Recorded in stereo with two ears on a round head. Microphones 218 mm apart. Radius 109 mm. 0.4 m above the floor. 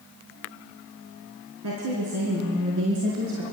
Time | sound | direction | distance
1.6 | a woman speaking | 70° right (ahead or behind) | 5 m